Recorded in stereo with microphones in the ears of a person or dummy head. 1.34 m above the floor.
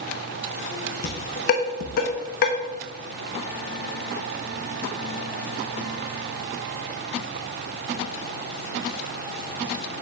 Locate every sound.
1.0 s dishes clattering: 50° left (ahead or behind), 1.0 m